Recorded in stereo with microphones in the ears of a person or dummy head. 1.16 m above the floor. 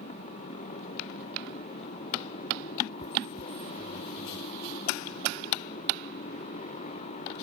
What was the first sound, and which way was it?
A motorcycle, 40° left (ahead or behind).